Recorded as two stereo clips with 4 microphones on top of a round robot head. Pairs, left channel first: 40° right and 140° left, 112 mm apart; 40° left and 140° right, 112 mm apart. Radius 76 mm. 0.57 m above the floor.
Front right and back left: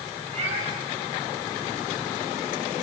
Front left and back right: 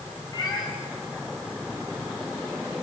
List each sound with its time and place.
0.3 s a cat meowing: 105° left, 4 m